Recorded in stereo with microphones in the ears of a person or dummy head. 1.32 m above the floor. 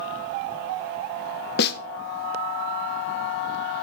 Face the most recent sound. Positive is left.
turn(degrees=55)  # may be behind; listen again after turning